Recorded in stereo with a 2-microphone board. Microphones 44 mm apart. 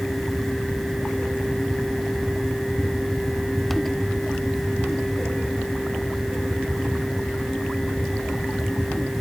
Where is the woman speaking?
I don't hear a woman speaking.